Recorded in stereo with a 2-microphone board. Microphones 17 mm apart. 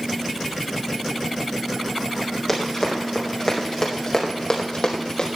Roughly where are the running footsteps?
Centre.